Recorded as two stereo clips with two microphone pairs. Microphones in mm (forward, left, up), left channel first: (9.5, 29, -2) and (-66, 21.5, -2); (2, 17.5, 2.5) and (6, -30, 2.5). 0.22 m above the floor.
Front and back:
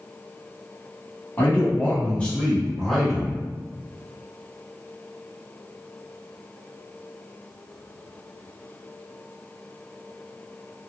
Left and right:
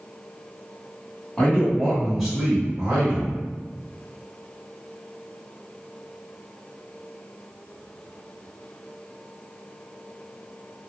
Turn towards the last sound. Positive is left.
turn(degrees=-90)